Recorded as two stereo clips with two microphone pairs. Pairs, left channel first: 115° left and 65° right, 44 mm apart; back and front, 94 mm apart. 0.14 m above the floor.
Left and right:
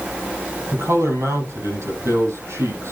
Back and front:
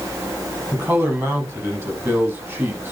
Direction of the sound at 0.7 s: 70° right.